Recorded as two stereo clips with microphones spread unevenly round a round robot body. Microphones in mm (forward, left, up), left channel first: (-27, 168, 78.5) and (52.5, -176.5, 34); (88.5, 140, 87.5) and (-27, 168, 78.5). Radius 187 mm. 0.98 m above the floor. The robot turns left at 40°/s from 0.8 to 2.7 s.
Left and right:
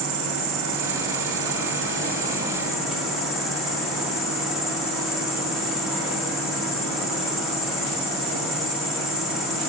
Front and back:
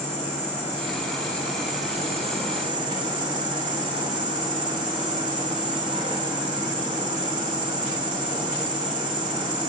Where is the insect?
90° right, 2.0 m; by 9.7 s 165° right, 2.0 m.